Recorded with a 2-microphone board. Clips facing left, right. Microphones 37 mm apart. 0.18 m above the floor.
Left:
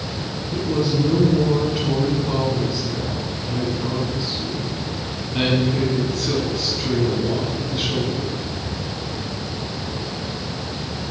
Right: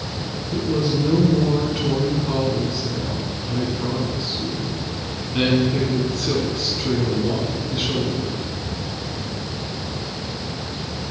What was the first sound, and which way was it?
A woman speaking, 10° right (ahead or behind).